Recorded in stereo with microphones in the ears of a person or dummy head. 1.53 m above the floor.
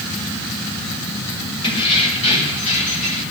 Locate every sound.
1.6 s keys jangling: 30° left (ahead or behind), 6 m; by 3.2 s 45° left (ahead or behind), 7 m